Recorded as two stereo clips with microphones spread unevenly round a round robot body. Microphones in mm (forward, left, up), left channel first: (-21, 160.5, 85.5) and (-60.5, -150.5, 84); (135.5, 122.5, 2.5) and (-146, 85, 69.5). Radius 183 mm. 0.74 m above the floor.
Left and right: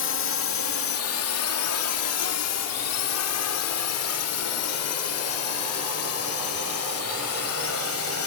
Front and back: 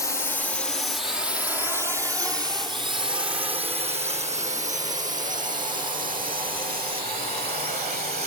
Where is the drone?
65° left; by 8.3 s 125° left.